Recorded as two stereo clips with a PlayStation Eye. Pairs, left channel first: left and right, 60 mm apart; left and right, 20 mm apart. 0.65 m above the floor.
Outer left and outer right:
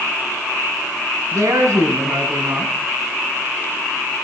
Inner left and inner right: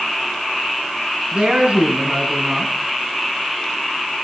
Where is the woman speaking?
80° right, 5.5 m.